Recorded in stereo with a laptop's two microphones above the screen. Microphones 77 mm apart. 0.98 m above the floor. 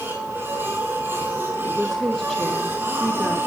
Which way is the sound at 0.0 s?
25° right (ahead or behind).